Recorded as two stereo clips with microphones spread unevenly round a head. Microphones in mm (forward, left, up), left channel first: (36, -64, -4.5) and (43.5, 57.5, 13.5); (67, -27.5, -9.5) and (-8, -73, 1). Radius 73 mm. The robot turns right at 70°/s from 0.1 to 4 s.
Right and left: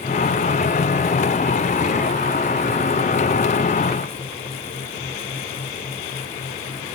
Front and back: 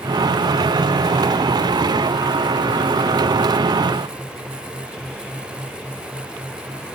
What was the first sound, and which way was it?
Only background noise.